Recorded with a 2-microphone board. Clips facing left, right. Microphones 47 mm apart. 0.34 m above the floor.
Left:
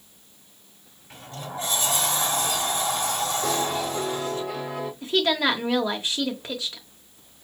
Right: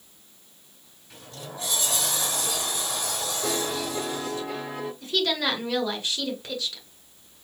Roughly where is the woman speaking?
Left.